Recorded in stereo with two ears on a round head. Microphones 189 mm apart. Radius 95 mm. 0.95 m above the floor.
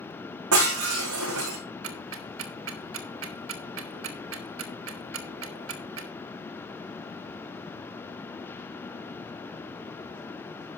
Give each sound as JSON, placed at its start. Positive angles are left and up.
{"t": 0.5, "sound": "breaking glass", "side_deg": -80, "distance_m": 6.0}
{"t": 1.8, "sound": "ticking", "side_deg": -65, "distance_m": 1.5}